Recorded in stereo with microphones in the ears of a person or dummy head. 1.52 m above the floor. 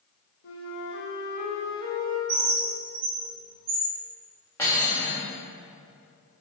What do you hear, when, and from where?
0.4 s a flute: 55° left (ahead or behind), 1.1 m
2.3 s a bird: 55° right (ahead or behind), 1.9 m
4.6 s cutlery clinking: 10° left (ahead or behind), 1.7 m